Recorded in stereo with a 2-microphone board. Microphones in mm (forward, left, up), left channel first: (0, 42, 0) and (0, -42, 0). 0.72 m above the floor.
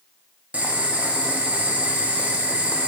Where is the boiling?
20° right (ahead or behind), 0.5 m.